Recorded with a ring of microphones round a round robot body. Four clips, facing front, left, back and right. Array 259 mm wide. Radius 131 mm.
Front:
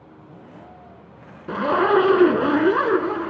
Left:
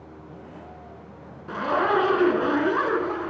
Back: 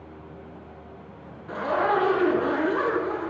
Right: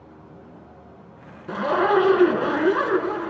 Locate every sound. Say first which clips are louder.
1.5 s a zipper: right 3 dB, front 5 dB; 10° right, 1.3 m